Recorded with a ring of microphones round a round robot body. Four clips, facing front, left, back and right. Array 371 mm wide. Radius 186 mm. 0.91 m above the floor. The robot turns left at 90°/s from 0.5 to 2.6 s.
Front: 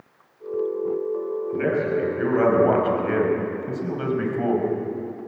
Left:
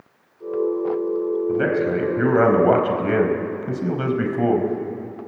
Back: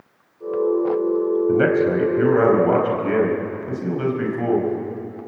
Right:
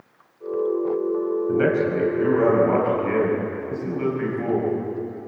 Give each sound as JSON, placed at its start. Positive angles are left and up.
{"t": 1.5, "sound": "a man speaking", "azimuth_deg": -170, "distance_m": 5.0}